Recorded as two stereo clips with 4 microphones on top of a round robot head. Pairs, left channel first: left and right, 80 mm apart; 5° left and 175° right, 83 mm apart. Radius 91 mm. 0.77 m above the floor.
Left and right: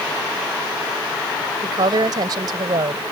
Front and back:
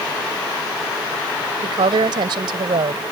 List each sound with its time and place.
1.6 s a woman speaking: 135° right